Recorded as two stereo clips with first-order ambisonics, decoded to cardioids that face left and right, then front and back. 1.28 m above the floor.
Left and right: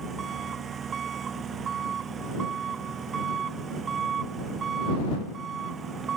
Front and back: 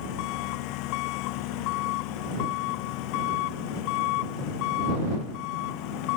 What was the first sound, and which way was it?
An engine running, 25° right.